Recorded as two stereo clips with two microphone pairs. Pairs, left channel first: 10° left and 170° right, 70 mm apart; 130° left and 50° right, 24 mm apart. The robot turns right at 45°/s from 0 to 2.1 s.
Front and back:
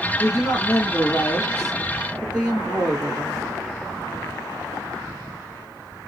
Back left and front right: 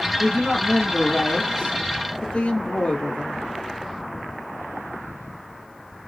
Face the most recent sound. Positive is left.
turn(degrees=115)